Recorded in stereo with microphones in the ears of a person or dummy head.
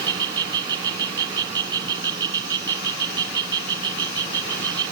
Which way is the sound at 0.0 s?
25° right (ahead or behind).